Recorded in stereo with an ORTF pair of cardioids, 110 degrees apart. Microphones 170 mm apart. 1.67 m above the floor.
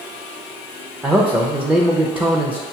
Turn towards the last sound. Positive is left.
turn(degrees=-5)